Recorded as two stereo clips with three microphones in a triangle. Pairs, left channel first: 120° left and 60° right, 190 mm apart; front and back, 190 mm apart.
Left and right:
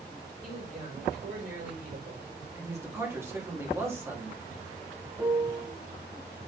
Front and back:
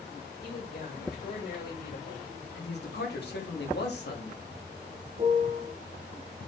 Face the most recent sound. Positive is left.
turn(degrees=-130)